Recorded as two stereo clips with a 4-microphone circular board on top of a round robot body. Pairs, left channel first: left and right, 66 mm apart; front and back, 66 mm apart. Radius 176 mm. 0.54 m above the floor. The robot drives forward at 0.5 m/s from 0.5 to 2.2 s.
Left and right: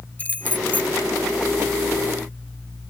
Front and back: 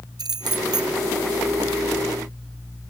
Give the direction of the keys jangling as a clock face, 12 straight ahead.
7 o'clock.